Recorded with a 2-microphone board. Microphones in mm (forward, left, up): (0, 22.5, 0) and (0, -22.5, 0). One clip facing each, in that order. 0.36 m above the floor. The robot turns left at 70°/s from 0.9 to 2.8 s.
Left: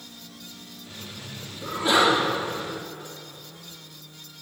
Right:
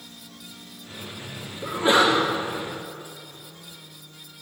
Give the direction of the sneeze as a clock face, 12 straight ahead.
12 o'clock.